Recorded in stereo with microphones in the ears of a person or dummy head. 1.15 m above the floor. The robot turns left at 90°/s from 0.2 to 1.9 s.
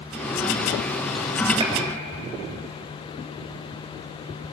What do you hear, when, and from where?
1.6 s a gunshot: 30° right (ahead or behind), 4.5 m; by 1.7 s 15° right (ahead or behind), 4.5 m